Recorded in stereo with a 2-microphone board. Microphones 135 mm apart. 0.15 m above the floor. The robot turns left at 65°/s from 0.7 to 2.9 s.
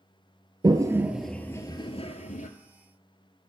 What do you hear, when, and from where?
0.6 s a toilet flushing: 35° right (ahead or behind), 0.6 m; by 2.5 s 75° left (ahead or behind), 0.6 m